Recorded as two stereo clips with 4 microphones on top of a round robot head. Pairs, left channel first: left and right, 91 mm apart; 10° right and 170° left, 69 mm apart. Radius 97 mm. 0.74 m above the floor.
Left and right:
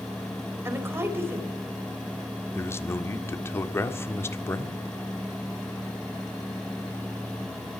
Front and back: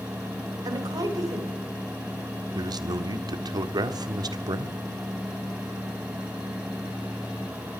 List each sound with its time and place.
0.7 s a woman speaking: 155° right, 4 m
2.5 s a man speaking: 155° left, 1.7 m